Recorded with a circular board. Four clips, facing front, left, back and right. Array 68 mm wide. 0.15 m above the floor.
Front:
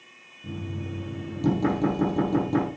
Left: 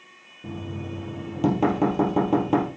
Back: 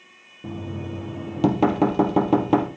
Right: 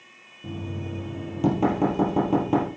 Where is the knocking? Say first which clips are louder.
Even, back 3 dB; 170° left, 3 m.